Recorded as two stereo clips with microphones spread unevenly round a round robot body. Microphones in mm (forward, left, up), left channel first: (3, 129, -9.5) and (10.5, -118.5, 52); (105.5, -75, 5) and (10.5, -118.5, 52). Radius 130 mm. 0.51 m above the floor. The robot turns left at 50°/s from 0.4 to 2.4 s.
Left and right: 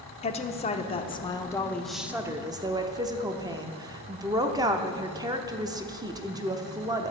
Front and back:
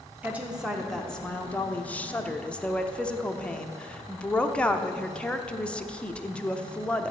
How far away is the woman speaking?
About 0.9 m.